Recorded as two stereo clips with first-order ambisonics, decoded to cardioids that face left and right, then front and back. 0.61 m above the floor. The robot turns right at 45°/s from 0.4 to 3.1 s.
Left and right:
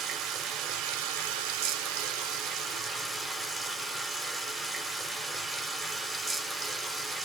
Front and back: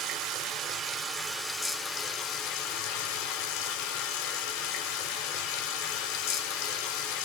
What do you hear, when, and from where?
0.0 s running water: 135° right, 0.7 m; by 7.2 s 15° right, 0.7 m